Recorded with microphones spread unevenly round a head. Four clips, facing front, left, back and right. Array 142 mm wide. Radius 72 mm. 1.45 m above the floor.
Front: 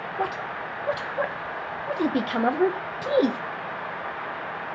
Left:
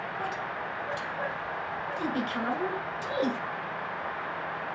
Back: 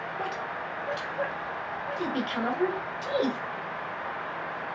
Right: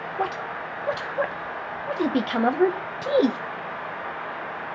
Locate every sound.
0.2 s a woman speaking: 55° right, 1.7 m